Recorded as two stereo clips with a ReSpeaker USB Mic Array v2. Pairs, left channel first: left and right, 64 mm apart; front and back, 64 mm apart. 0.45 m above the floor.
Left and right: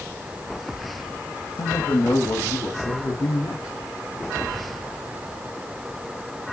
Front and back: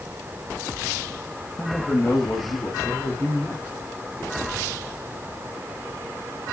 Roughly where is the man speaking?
Left.